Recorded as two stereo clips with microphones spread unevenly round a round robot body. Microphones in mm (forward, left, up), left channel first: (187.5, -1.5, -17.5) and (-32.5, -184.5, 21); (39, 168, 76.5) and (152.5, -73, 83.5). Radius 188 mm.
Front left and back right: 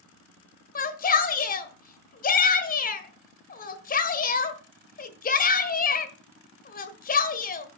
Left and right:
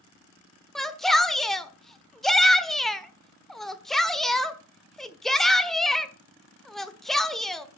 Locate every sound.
0.8 s a shout: 30° left, 1.5 m